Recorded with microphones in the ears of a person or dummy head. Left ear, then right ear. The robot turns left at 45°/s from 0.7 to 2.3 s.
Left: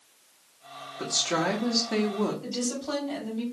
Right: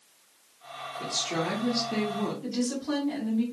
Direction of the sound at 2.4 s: 10° left (ahead or behind).